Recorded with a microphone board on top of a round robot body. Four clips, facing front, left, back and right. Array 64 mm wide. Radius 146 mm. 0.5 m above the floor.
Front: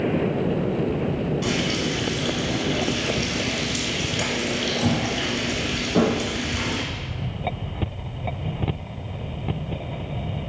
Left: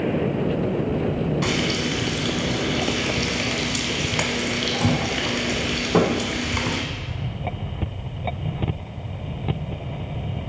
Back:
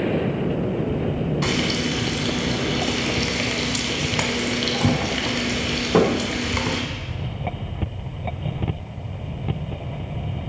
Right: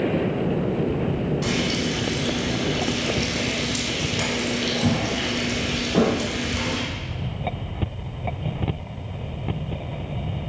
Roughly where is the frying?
Behind left.